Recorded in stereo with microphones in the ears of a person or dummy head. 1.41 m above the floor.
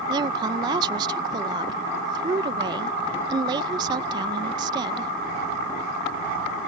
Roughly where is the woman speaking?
Right.